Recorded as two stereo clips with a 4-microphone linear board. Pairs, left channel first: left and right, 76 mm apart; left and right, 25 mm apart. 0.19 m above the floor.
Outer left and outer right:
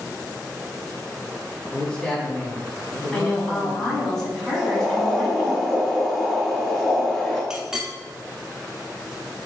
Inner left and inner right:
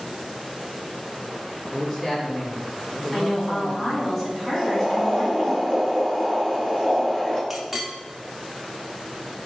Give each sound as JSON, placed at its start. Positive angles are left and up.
{"t": 1.7, "sound": "a man speaking", "side_deg": 10, "distance_m": 1.3}
{"t": 3.1, "sound": "a woman speaking", "side_deg": 0, "distance_m": 1.4}
{"t": 4.5, "sound": "boiling", "side_deg": 30, "distance_m": 1.8}
{"t": 7.5, "sound": "a clink", "side_deg": -5, "distance_m": 0.6}